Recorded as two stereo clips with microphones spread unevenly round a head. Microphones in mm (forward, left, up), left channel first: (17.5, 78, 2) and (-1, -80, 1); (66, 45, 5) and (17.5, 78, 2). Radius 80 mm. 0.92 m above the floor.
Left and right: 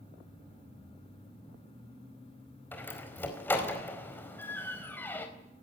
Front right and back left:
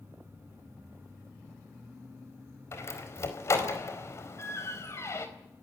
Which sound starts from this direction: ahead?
A door slam, at 2.7 s.